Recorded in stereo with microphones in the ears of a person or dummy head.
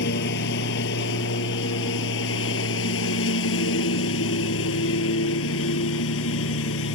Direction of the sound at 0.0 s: 60° left (ahead or behind).